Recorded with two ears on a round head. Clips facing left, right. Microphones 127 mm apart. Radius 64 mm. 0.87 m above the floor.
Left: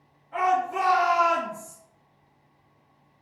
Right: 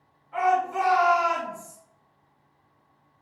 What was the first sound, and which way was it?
A shout, 45° left (ahead or behind).